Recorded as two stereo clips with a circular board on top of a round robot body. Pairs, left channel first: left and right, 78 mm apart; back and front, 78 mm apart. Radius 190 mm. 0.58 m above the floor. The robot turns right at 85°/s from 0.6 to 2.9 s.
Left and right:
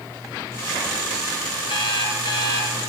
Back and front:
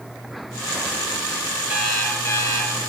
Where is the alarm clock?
75° left, 5 m; by 2.8 s 170° left, 5 m.